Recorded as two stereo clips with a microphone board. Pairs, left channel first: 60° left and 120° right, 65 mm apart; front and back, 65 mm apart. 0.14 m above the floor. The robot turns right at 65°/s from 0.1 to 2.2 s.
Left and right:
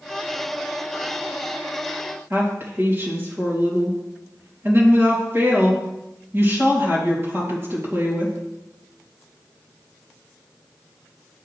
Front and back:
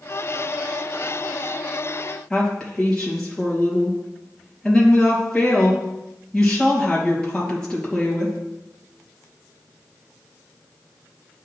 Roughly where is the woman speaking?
Right.